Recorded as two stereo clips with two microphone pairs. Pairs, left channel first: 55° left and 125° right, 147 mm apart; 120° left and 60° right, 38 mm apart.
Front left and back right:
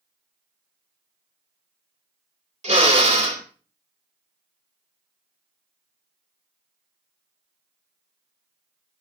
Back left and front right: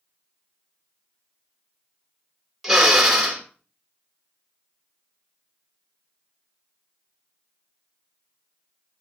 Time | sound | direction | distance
2.6 | a drill | 145° right | 2 m